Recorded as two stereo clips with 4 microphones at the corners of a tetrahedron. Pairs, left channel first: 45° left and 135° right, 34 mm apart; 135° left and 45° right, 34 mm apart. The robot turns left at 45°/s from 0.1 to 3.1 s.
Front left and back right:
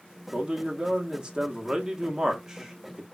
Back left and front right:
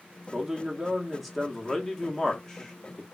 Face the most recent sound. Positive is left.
turn(degrees=135)